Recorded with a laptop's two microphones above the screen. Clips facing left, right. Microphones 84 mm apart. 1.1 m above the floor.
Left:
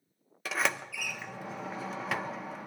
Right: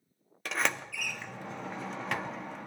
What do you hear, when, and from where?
0.5 s a sliding door: 5° left (ahead or behind), 0.6 m